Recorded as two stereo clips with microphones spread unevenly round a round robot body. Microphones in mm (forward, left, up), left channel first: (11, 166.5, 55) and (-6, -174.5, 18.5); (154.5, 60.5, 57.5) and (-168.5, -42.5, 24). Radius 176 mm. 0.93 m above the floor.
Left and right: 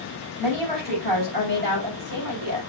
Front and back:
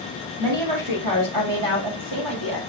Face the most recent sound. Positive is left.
turn(degrees=-130)